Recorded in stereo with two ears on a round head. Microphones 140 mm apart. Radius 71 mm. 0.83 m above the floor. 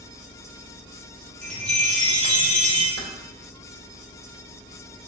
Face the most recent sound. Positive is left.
turn(degrees=-70)  # may be behind; listen again after turning